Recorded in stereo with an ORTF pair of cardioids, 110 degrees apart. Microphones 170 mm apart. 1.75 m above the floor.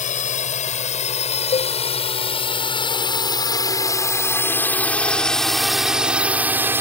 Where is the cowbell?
45° left.